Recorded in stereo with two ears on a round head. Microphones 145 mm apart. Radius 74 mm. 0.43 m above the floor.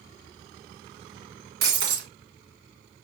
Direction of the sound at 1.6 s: 65° right (ahead or behind).